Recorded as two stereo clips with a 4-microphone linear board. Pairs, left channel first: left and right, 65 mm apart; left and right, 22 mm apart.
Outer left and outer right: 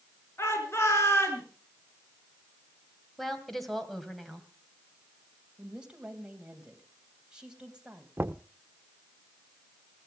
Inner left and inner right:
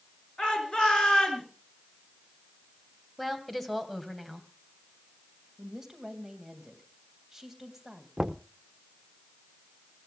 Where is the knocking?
35° right (ahead or behind), 0.6 m.